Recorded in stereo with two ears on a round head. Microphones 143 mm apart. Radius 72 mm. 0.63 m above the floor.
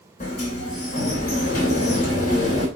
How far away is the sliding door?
About 2.5 m.